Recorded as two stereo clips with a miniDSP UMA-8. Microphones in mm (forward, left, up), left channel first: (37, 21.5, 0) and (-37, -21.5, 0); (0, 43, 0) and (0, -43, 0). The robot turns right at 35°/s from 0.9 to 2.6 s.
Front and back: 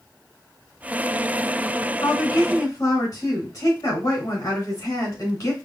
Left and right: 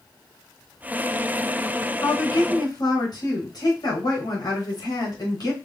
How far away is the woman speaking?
About 2.5 m.